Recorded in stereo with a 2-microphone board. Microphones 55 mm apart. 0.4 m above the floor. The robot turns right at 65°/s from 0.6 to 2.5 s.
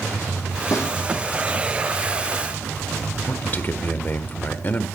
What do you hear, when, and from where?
0.7 s a snare drum: 70° left (ahead or behind), 5 m; by 0.9 s 60° left (ahead or behind), 5 m
3.3 s a man speaking: 35° left (ahead or behind), 0.9 m